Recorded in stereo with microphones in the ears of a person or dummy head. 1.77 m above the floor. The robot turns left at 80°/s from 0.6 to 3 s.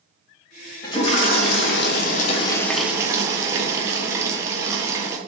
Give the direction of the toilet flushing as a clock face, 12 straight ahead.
7 o'clock.